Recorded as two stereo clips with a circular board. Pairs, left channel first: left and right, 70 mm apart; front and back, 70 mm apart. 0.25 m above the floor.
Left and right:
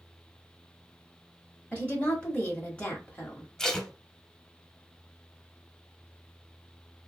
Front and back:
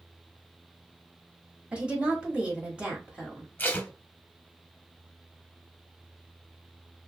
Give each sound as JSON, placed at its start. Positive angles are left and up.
{"t": 1.7, "sound": "a woman speaking", "azimuth_deg": 135, "distance_m": 1.1}
{"t": 3.6, "sound": "tape being pulled", "azimuth_deg": 15, "distance_m": 0.7}